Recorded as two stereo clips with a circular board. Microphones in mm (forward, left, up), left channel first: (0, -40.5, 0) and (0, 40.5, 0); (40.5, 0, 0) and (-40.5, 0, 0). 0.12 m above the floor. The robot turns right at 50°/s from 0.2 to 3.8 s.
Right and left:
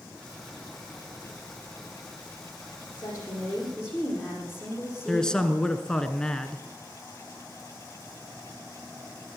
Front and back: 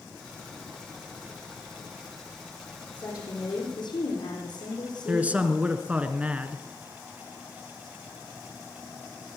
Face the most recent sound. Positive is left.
turn(degrees=-150)